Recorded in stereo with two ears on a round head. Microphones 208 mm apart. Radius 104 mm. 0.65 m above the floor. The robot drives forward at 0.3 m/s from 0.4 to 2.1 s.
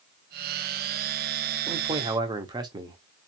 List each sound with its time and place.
1.7 s a man speaking: 20° right (ahead or behind), 0.6 m